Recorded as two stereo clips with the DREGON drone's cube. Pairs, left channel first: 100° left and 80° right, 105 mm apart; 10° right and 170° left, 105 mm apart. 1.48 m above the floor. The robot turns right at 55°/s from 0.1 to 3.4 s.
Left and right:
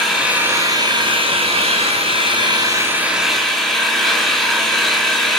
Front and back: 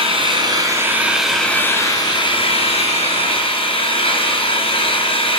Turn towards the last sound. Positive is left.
turn(degrees=15)